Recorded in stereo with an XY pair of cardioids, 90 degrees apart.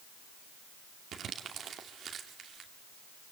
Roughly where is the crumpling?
Right.